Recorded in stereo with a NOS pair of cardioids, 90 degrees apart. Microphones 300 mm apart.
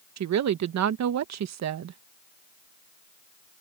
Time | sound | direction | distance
0.2 | a woman speaking | 60° right | ?